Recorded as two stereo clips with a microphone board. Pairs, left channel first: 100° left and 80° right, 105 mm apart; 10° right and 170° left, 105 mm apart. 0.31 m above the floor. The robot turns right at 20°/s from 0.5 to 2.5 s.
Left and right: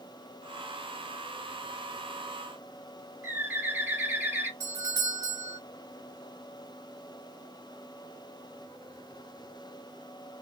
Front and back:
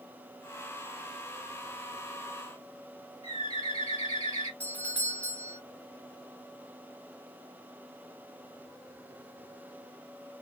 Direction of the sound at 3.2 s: 10° right.